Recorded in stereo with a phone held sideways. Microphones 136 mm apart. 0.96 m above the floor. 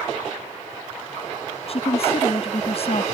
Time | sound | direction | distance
1.7 | a woman speaking | 50° left (ahead or behind) | ?